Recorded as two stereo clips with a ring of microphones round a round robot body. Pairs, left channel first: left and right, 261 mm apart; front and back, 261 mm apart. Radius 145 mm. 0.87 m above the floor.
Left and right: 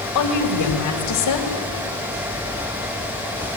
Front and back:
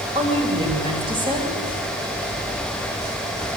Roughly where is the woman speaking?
Left.